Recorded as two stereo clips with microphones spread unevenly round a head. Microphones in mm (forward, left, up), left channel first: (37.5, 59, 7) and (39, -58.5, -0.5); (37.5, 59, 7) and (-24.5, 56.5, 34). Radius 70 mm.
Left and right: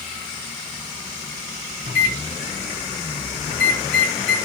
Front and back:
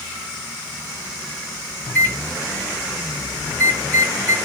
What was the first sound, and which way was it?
A microwave, 65° left.